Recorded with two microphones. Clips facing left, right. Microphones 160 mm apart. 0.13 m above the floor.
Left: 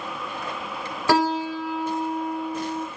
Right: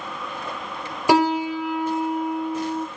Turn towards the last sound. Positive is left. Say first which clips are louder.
# right 3 dB
turn(degrees=-15)  # may be behind; listen again after turning